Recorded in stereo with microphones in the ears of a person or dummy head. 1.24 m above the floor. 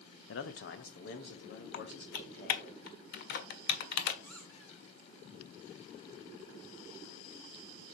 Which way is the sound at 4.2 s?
10° left (ahead or behind).